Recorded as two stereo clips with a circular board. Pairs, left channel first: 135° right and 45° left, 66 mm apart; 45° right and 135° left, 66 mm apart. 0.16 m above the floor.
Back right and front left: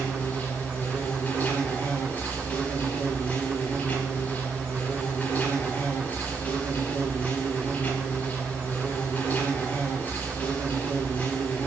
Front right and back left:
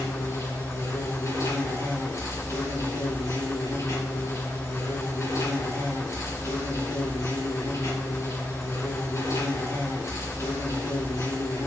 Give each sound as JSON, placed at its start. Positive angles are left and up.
{"t": 0.0, "sound": "an insect", "azimuth_deg": -75, "distance_m": 5.5}